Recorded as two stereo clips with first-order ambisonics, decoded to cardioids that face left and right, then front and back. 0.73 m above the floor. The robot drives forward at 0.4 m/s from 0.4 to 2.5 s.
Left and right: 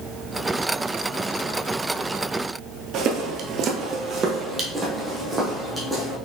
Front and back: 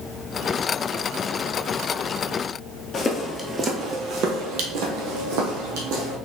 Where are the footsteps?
65° right, 1.0 m; by 6.2 s 175° right, 2.5 m.